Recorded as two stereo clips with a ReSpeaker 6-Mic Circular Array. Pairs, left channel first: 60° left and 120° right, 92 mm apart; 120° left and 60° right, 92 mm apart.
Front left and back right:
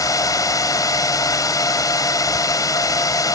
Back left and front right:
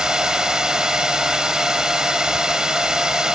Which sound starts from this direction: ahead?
A drone, at 0.0 s.